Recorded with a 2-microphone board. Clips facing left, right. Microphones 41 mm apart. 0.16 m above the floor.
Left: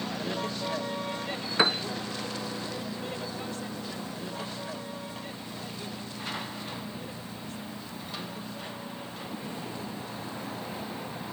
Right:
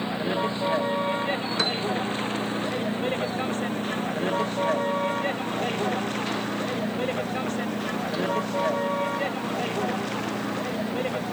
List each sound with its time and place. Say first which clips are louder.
0.0 s a vehicle: right 6 dB; 25° right (ahead or behind); by 11.3 s 75° right (ahead or behind)
1.6 s a piano: left 6 dB; 20° left (ahead or behind)